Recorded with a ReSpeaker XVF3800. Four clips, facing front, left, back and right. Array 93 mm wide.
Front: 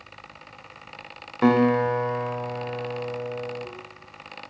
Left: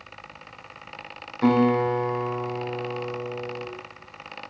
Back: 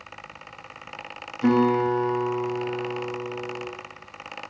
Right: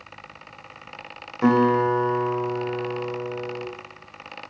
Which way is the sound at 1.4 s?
15° right.